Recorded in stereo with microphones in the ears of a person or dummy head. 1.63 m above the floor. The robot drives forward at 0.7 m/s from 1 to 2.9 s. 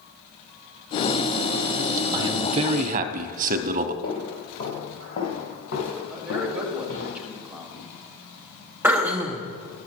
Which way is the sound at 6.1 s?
5° right (ahead or behind).